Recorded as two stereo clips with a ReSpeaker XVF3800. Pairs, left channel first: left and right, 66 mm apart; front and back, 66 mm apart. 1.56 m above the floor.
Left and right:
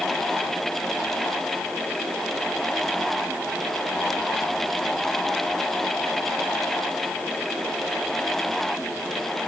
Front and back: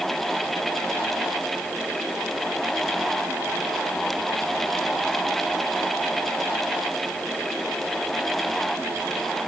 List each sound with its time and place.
Only background noise.